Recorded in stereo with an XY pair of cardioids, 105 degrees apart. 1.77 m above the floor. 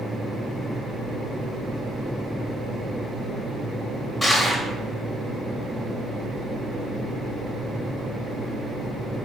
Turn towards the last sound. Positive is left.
turn(degrees=10)